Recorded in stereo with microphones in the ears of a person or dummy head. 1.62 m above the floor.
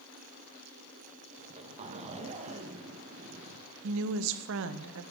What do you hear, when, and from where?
1.4 s a zipper: 35° right (ahead or behind), 1.2 m
3.8 s a woman speaking: 75° right (ahead or behind), 0.8 m